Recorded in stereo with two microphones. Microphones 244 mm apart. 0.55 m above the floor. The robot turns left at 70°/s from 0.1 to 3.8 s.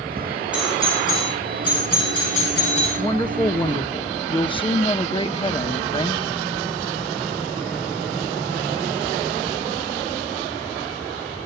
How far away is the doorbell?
About 8 m.